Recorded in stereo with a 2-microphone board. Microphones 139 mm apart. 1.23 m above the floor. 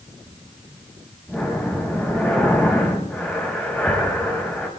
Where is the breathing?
10° left (ahead or behind), 4.5 m.